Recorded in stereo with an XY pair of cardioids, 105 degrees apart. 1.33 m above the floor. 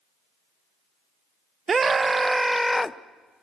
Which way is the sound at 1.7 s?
40° right.